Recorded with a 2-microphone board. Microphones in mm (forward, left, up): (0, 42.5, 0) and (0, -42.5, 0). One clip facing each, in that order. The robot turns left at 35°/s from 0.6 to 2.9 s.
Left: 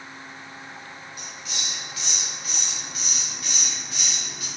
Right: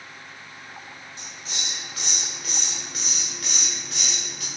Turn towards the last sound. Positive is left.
turn(degrees=-90)